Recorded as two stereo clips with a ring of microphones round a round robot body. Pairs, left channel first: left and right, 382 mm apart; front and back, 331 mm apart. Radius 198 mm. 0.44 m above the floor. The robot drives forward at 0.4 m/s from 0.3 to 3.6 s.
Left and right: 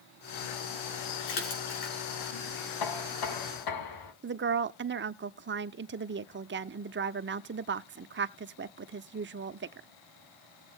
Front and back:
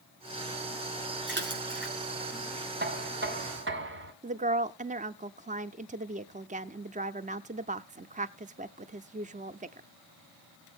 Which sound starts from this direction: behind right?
A woman speaking, at 4.2 s.